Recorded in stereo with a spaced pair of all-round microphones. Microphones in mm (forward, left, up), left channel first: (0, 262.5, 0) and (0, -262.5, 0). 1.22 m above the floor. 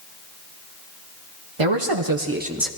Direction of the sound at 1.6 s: 60° right (ahead or behind).